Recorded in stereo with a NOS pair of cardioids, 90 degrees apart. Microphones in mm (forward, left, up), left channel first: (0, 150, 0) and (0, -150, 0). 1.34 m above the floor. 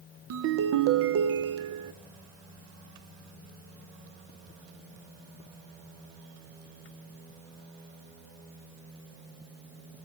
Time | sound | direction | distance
0.3 | a ringtone | 55° right | 0.7 m